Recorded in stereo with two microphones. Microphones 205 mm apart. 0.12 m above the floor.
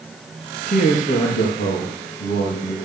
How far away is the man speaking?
About 2.5 m.